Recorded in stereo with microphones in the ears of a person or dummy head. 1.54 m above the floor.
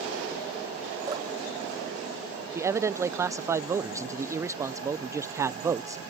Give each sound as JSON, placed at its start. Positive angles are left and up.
{"t": 1.1, "sound": "dripping", "side_deg": -15}
{"t": 2.5, "sound": "a man speaking", "side_deg": -20}